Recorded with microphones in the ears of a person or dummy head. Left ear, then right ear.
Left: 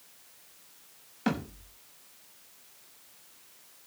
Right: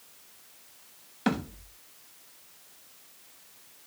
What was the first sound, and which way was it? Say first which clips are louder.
A thud: right 2 dB; 5° right (ahead or behind).